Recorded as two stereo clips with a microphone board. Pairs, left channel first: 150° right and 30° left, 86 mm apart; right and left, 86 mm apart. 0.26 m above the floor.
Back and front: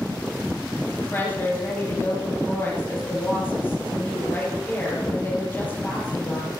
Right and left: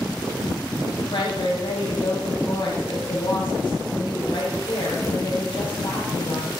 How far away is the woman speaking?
About 6 m.